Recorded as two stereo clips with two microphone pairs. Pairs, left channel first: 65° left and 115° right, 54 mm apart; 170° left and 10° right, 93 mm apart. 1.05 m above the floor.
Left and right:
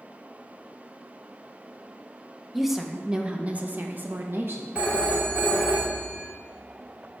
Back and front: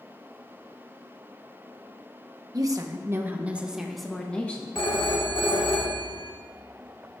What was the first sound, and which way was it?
A woman speaking, 30° right.